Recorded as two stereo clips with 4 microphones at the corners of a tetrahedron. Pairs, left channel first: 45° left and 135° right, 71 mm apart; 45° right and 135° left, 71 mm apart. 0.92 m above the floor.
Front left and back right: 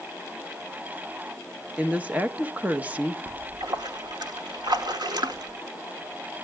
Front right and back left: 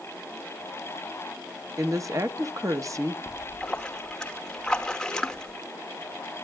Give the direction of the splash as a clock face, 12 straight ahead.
4 o'clock.